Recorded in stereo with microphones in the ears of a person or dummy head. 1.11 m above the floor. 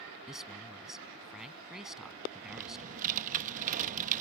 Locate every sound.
0.3 s a man speaking: centre (ahead or behind)
2.5 s typing on a keyboard: 40° right (ahead or behind)